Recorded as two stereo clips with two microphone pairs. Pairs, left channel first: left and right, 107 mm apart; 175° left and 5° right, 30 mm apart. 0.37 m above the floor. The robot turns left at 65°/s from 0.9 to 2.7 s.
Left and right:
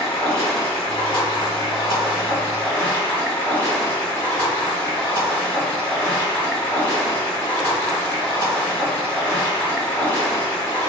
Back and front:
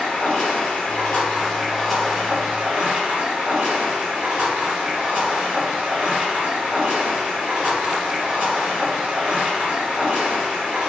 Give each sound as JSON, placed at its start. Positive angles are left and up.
{"t": 0.0, "sound": "running water", "azimuth_deg": 145, "distance_m": 1.9}